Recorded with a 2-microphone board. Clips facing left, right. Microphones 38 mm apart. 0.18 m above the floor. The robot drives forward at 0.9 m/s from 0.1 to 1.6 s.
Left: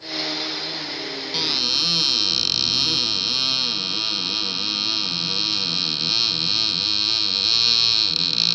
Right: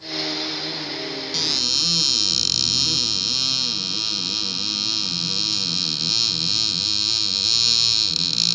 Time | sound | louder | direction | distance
1.3 | a cupboard door | left 2 dB | 20° left (ahead or behind) | ?